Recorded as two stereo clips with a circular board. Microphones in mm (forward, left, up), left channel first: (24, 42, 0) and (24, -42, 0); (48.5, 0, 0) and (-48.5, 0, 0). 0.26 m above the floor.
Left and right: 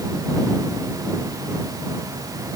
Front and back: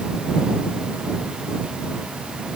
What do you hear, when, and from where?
Only background noise.